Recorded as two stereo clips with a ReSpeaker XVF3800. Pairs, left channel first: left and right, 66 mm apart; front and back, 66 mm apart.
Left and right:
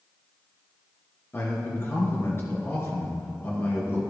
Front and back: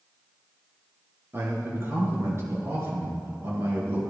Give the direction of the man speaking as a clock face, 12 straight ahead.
7 o'clock.